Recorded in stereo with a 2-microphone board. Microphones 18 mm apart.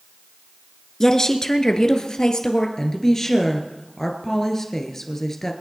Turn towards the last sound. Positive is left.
turn(degrees=20)  # may be behind; listen again after turning